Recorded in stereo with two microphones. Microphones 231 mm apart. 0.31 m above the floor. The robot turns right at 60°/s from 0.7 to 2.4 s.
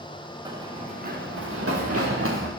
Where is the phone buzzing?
I don't hear a phone buzzing.